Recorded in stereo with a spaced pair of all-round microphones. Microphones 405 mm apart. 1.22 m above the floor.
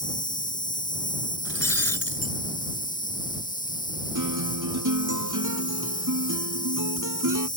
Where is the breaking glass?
40° left (ahead or behind).